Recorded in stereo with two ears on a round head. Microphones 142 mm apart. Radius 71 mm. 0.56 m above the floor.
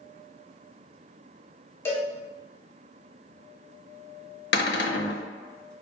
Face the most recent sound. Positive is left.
turn(degrees=75)  # may be behind; listen again after turning